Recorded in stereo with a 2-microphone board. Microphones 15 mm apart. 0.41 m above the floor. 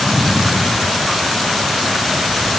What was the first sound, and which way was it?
Only background noise.